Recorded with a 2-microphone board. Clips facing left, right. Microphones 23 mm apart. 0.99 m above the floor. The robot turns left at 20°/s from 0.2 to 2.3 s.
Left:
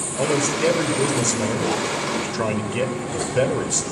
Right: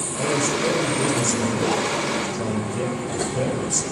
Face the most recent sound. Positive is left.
turn(degrees=80)